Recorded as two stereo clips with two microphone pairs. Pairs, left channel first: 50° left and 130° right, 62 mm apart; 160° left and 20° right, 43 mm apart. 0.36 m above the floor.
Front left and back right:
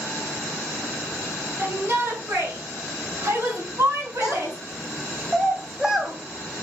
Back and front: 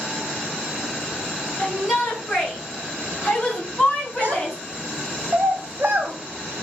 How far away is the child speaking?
About 1.4 m.